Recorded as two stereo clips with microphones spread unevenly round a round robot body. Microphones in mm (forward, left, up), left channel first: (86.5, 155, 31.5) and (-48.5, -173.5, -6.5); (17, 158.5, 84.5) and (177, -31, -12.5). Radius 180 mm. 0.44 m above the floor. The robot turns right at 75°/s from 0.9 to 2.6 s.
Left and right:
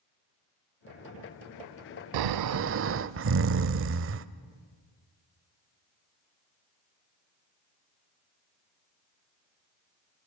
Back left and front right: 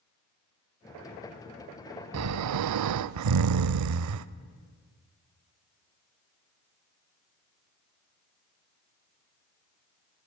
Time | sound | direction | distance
2.1 | snoring | 90° right | 0.5 m